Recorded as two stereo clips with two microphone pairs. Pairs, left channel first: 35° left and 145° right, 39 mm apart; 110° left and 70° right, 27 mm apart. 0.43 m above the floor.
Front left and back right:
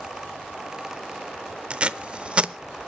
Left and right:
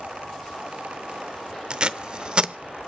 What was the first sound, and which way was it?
Tape being pulled, 105° right.